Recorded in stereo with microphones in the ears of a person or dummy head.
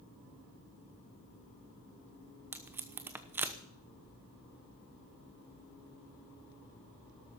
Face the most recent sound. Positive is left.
turn(degrees=-5)  # may be behind; listen again after turning